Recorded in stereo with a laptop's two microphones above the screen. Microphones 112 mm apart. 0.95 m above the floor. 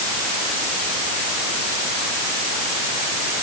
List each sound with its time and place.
Only background noise.